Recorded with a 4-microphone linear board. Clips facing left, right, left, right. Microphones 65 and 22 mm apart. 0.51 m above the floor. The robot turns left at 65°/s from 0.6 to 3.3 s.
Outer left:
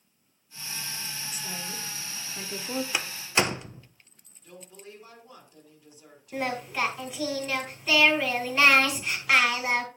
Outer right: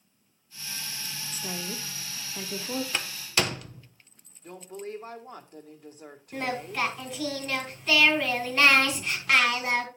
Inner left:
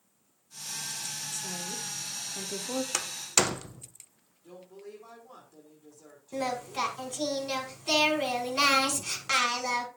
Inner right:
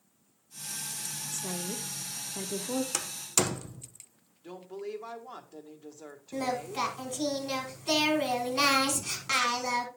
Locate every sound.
1.3 s a woman speaking: 40° right (ahead or behind), 0.8 m; by 2.8 s 10° left (ahead or behind), 0.8 m
2.9 s a door slam: 10° left (ahead or behind), 0.5 m; by 3.9 s 25° left (ahead or behind), 0.5 m
4.4 s a woman speaking: 45° right (ahead or behind), 1.4 m
6.3 s singing: 10° left (ahead or behind), 1.7 m